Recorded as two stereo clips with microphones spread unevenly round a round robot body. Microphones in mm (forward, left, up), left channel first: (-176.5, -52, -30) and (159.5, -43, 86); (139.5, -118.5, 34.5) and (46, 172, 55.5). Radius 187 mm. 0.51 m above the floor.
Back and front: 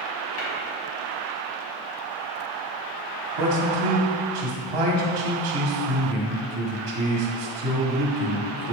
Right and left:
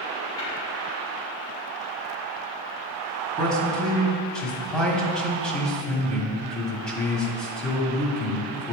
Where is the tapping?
150° right, 2.5 m.